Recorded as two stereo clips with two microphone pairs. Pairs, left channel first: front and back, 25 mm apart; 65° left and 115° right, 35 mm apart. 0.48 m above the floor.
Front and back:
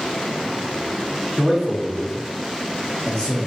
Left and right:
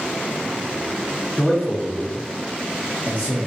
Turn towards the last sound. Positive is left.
turn(degrees=10)